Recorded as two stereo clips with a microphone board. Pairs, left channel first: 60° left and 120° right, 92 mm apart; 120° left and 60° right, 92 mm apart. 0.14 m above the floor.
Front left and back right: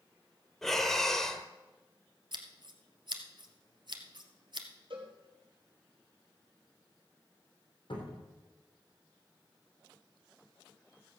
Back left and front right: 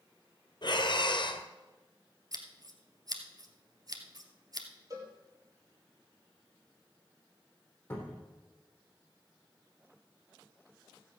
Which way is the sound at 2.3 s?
100° right.